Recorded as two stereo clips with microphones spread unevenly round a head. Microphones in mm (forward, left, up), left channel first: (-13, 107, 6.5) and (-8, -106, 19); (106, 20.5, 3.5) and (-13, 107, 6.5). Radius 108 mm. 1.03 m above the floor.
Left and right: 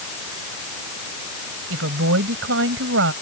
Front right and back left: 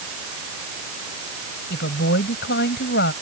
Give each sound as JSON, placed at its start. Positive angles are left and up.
{"t": 1.7, "sound": "a woman speaking", "azimuth_deg": -55}